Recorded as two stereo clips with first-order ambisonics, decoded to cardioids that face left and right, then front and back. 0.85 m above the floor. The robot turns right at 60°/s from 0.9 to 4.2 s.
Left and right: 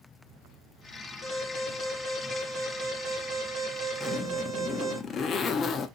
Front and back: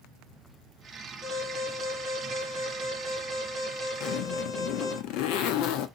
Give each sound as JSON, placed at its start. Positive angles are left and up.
{"t": 1.2, "sound": "an alarm", "azimuth_deg": 105, "distance_m": 2.5}
{"t": 4.0, "sound": "a zipper", "azimuth_deg": 15, "distance_m": 0.7}